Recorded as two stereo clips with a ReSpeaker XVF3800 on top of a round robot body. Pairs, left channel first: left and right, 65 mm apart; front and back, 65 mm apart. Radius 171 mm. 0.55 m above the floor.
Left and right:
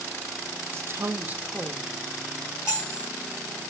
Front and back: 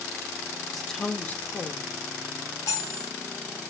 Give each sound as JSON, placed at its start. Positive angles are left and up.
{"t": 0.7, "sound": "a woman speaking", "azimuth_deg": -95, "distance_m": 0.7}
{"t": 2.7, "sound": "cutlery clinking", "azimuth_deg": 40, "distance_m": 2.0}